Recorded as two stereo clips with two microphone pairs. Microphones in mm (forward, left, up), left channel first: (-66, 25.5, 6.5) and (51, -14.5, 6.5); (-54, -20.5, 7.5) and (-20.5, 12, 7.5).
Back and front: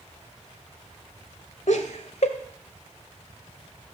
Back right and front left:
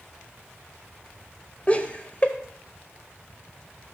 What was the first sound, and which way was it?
Laughter, 165° left.